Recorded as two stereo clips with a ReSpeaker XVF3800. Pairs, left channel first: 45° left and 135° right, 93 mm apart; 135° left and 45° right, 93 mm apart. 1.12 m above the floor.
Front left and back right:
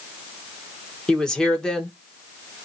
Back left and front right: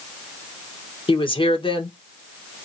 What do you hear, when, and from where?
1.1 s a woman speaking: 130° left, 1.2 m